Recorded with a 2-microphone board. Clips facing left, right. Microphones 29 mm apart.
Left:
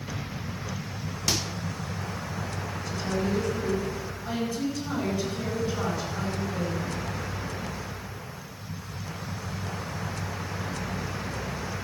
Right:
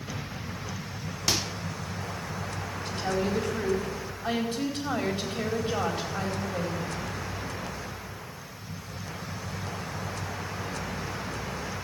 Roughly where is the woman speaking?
Right.